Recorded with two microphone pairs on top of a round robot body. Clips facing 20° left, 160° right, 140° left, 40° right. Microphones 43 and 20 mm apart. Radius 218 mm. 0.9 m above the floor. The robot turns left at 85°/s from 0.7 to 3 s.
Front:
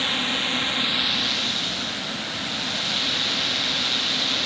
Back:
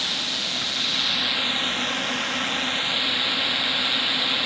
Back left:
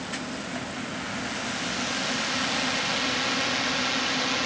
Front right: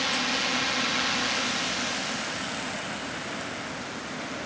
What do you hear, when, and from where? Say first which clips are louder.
0.0 s a drone: front 3 dB, front right 7 dB; 30° right; by 4.5 s 130° left